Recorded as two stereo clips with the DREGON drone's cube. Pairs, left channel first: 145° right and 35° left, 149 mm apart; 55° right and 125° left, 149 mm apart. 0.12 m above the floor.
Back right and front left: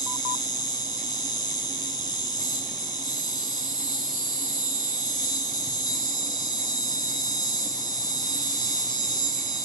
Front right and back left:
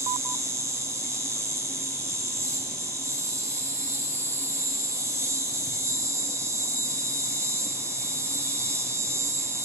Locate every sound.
0.0 s an insect: straight behind, 2.5 m